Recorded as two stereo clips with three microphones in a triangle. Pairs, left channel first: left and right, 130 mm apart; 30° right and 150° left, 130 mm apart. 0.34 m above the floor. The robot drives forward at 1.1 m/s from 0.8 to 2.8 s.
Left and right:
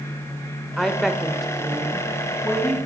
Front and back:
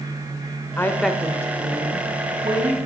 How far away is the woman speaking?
About 0.9 m.